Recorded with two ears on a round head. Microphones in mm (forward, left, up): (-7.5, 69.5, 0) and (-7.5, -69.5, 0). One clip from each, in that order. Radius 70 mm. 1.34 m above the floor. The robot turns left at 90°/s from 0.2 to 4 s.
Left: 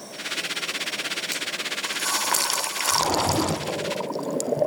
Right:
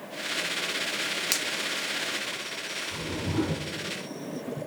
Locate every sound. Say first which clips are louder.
1.3 s a finger snap: right 1 dB; 30° right (ahead or behind), 2.5 m; by 1.5 s 15° right (ahead or behind), 2.5 m
2.9 s a whoosh: left 13 dB; 135° left, 1.6 m; by 3.7 s 60° left, 1.6 m